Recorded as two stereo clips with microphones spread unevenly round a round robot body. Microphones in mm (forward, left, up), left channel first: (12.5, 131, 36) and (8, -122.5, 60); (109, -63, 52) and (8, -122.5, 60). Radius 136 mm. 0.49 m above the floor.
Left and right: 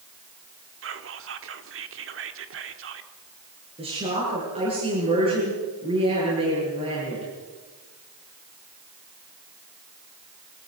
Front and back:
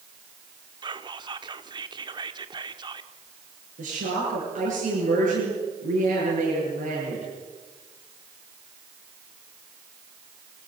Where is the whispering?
110° right, 1.7 m.